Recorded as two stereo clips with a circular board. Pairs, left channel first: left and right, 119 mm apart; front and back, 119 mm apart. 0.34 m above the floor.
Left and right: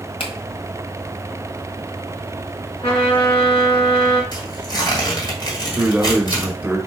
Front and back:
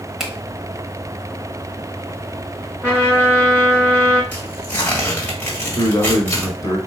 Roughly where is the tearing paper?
Ahead left.